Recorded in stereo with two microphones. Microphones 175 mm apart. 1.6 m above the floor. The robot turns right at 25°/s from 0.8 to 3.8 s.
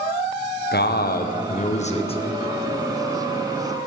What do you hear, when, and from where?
0.7 s a man speaking: 115° left, 0.8 m; by 2.2 s 150° left, 0.8 m